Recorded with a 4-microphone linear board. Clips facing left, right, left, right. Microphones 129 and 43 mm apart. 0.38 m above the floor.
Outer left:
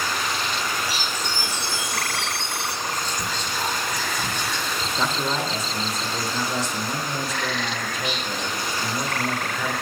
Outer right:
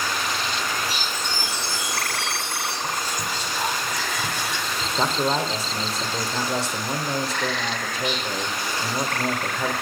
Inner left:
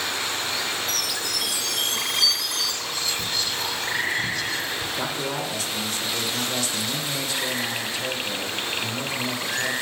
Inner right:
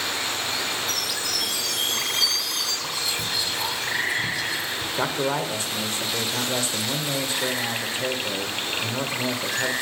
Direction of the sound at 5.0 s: 30° right (ahead or behind).